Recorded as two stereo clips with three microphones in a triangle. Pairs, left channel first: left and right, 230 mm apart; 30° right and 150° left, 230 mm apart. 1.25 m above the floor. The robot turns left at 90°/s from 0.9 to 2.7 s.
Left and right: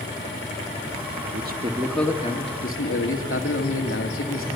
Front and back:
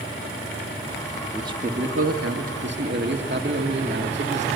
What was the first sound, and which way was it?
A man speaking, 125° right.